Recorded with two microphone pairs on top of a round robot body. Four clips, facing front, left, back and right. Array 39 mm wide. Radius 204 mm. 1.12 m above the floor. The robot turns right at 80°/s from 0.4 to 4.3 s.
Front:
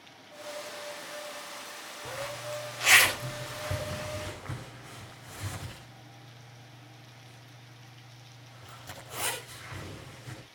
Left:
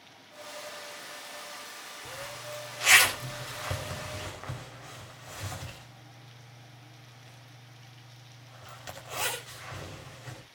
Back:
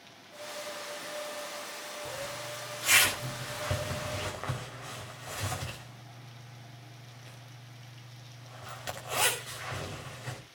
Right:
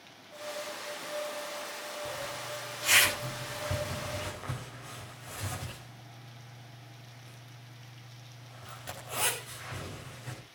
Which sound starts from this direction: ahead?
A zipper, at 2.0 s.